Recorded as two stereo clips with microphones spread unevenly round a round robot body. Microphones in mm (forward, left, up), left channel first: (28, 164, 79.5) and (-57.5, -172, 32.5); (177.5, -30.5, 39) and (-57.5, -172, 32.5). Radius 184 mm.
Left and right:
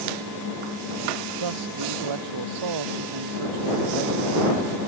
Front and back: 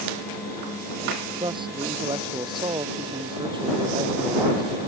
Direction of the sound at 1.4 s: 75° right.